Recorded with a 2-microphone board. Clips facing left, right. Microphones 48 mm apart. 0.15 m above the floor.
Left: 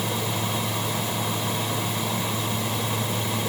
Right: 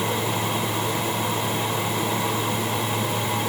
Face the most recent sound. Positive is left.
No sound to turn to.